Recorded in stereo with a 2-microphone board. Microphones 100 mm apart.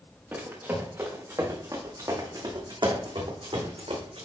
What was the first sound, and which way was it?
Running footsteps, 20° right (ahead or behind).